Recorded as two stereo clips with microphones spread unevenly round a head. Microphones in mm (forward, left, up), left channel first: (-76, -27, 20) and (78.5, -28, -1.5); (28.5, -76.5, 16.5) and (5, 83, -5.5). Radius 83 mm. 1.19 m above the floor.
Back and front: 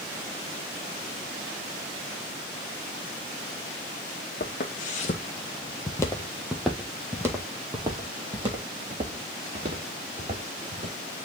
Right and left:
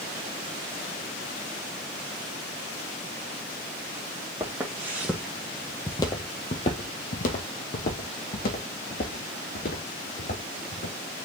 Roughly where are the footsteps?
Behind.